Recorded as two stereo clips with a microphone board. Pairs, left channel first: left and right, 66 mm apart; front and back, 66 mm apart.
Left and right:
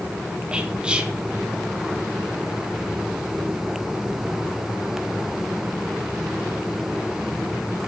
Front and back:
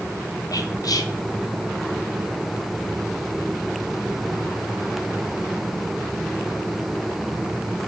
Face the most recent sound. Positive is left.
turn(degrees=-15)